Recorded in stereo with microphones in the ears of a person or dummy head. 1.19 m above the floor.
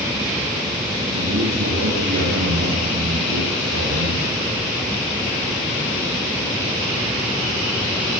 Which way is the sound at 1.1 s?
55° right (ahead or behind).